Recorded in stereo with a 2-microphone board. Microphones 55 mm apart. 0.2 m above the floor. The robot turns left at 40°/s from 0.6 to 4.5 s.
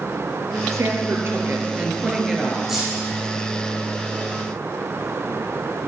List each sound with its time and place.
0.7 s a woman speaking: 110° right, 3.5 m; by 2.6 s 175° left, 3.5 m
2.7 s keys jangling: 5° right (ahead or behind), 6.5 m; by 3.0 s 5° left (ahead or behind), 6.5 m